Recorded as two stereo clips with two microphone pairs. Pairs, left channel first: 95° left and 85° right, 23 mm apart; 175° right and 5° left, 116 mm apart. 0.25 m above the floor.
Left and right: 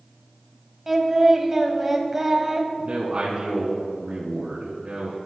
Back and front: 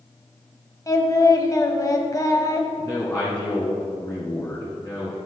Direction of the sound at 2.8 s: 110° right.